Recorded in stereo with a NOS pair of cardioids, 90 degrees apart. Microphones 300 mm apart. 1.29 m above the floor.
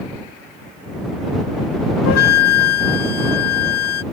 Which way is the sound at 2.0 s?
55° left.